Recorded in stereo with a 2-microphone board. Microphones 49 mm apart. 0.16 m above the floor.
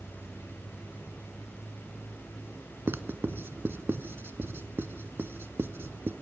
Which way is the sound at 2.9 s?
50° right (ahead or behind).